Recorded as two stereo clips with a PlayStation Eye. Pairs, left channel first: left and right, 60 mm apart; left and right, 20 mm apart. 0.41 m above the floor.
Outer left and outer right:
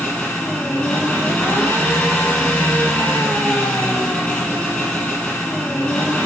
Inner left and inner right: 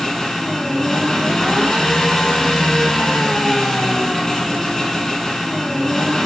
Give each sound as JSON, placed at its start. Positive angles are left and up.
{"t": 0.0, "sound": "an engine running", "side_deg": 20, "distance_m": 3.5}